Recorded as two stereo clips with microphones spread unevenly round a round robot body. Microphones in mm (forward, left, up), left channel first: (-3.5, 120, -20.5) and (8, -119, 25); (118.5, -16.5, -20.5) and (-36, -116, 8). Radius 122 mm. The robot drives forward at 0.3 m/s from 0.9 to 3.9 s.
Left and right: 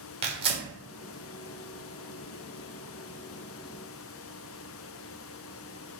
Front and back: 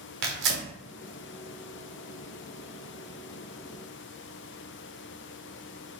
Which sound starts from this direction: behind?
Tearing paper, at 0.2 s.